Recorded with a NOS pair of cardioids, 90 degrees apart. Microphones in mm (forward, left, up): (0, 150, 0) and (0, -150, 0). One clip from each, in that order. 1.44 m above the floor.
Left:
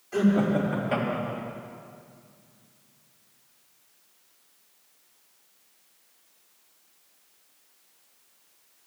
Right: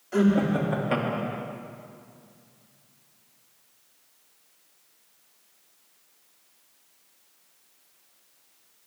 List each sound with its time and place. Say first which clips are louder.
0.1 s laughter: right 1 dB; 20° right, 4 m; by 1.4 s 35° right, 2.5 m